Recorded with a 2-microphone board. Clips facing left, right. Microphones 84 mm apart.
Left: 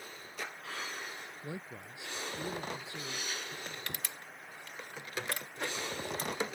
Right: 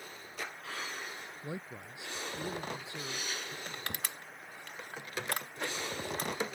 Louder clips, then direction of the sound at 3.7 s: Right 2 dB; 55° right (ahead or behind).